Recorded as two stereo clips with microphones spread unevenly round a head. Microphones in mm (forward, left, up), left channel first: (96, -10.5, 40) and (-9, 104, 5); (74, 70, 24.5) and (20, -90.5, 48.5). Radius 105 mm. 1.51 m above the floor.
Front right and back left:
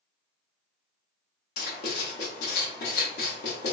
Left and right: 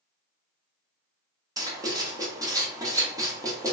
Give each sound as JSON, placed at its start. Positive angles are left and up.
{"t": 1.6, "sound": "writing", "azimuth_deg": -40, "distance_m": 0.9}